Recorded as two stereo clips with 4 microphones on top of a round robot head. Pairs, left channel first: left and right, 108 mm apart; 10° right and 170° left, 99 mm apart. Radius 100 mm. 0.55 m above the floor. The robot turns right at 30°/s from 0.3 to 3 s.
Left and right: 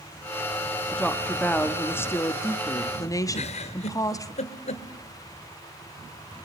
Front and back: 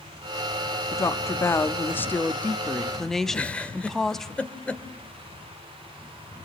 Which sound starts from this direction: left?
A giggle, at 3.3 s.